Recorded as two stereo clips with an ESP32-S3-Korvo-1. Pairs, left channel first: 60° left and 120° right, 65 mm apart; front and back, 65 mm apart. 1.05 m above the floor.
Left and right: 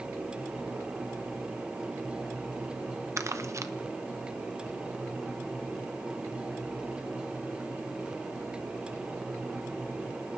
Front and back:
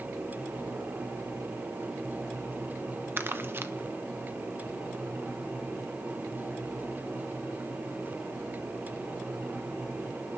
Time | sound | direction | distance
3.2 | crumpling | 135° right | 0.9 m